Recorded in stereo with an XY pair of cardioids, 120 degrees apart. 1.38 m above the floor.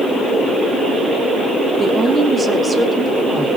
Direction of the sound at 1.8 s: 25° right.